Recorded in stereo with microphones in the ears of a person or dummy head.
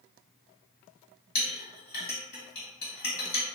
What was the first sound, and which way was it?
A clink, 55° left (ahead or behind).